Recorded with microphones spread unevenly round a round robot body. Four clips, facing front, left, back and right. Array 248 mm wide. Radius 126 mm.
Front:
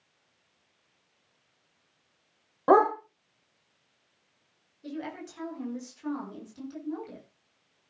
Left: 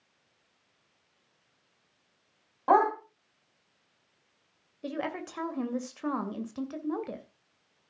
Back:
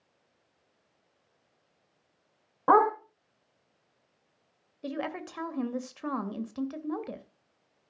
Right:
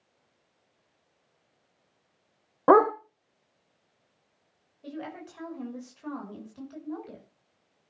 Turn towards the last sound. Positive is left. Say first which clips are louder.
# left 5 dB, back 3 dB
turn(degrees=135)